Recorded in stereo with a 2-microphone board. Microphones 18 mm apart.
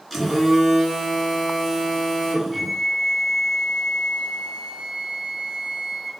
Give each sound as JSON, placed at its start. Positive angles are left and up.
{"t": 0.1, "sound": "a phone buzzing", "side_deg": -5, "distance_m": 2.0}
{"t": 2.5, "sound": "a flute", "side_deg": 0, "distance_m": 0.7}